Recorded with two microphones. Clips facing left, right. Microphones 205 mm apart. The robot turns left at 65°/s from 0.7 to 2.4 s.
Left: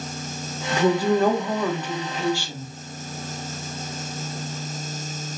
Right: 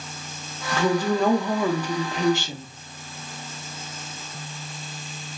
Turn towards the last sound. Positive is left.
turn(degrees=-20)  # may be behind; listen again after turning